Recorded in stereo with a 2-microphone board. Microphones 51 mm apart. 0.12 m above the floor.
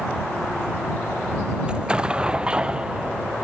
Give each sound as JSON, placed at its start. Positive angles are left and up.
{"t": 1.7, "sound": "an explosion", "side_deg": -15}